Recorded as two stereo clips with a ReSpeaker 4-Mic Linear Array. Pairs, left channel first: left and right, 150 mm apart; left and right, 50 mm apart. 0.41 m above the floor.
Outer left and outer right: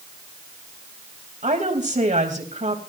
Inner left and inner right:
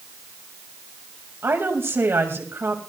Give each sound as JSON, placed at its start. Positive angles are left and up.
{"t": 1.4, "sound": "a woman speaking", "side_deg": -55, "distance_m": 2.0}